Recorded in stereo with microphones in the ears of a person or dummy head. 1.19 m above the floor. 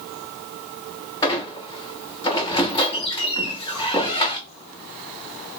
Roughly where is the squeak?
Left.